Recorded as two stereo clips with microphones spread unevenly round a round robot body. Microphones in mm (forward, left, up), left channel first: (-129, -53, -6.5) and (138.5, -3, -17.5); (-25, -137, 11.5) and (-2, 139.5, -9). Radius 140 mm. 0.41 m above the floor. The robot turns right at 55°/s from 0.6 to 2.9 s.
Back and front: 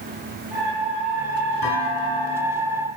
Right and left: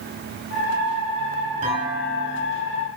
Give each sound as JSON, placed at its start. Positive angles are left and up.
{"t": 1.6, "sound": "a clunk", "azimuth_deg": 150, "distance_m": 6.5}